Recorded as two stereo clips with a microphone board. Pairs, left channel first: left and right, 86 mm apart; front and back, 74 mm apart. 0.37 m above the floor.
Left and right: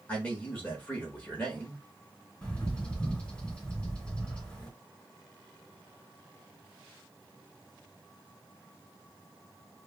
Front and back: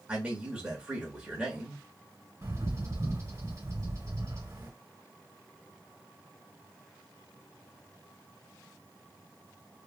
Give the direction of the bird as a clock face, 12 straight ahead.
7 o'clock.